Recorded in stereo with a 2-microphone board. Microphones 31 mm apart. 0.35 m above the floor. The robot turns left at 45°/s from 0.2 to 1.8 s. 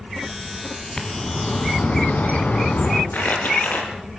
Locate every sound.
1.0 s a bird: 160° left, 3 m; by 3.0 s 125° left, 3 m
3.1 s crumpling: 70° left (ahead or behind), 4 m